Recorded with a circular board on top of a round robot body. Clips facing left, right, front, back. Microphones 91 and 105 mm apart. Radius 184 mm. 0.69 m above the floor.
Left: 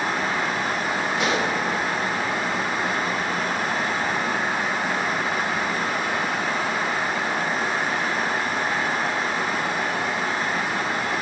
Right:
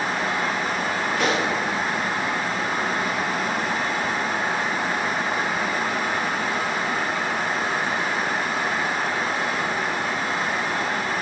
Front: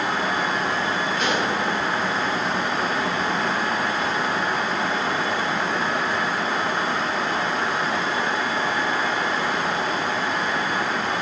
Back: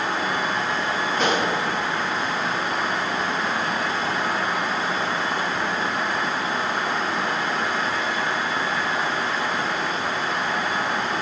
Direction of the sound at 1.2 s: 125° right.